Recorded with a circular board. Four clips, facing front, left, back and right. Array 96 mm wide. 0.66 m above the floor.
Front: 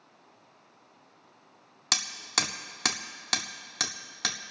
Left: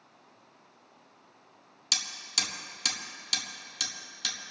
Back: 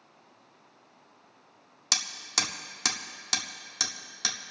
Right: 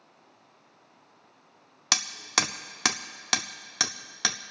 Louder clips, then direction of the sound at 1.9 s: Right 10 dB, front 2 dB; 75° right.